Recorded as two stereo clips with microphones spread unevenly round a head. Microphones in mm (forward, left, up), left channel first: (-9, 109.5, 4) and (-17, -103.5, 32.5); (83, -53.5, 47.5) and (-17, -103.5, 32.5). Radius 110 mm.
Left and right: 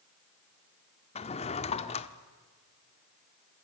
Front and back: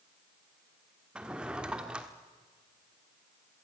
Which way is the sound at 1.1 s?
115° left.